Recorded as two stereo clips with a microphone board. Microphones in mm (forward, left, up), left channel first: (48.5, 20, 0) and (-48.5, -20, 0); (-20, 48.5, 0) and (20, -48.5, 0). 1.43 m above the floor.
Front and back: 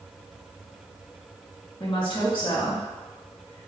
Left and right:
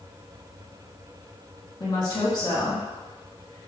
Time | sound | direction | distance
1.8 | a woman speaking | 60° left | 1.7 m